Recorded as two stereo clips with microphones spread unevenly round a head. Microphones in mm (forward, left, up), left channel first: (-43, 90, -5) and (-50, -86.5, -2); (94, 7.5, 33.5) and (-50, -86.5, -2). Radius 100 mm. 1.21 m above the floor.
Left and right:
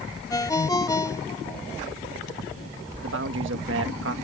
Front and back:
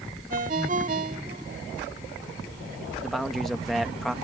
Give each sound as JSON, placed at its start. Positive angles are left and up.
{"t": 0.3, "sound": "a ringtone", "azimuth_deg": 155}
{"t": 3.0, "sound": "a man speaking", "azimuth_deg": -60}